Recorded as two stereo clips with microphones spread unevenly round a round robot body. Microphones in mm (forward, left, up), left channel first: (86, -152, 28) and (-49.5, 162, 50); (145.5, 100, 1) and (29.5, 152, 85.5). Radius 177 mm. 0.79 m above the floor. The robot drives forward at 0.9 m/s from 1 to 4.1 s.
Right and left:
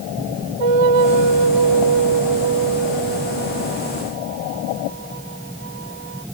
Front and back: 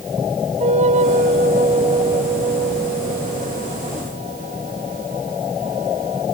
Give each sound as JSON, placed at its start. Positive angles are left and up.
{"t": 0.6, "sound": "a flute", "azimuth_deg": 125}